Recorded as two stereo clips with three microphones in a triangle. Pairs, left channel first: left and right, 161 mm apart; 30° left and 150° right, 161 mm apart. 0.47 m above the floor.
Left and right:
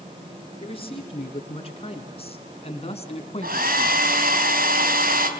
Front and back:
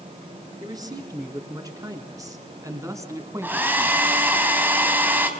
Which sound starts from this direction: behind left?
A man speaking, at 0.6 s.